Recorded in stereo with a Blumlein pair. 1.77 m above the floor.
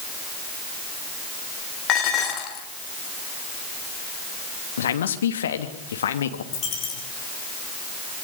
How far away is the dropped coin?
About 7.5 m.